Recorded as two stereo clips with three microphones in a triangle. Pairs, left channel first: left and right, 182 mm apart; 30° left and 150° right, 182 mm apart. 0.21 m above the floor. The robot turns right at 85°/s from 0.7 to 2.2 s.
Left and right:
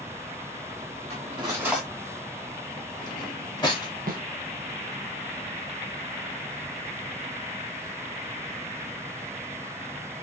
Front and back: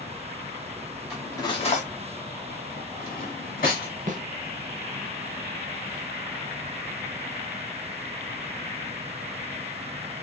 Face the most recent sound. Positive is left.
turn(degrees=-115)